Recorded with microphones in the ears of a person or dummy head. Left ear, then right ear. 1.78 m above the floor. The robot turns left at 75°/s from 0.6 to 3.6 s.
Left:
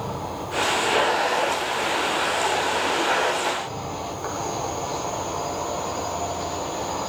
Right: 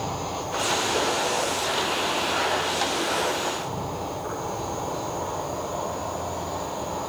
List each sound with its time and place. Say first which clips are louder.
0.0 s an insect: right 1 dB; 70° right, 5 m; by 7.1 s 65° left, 5 m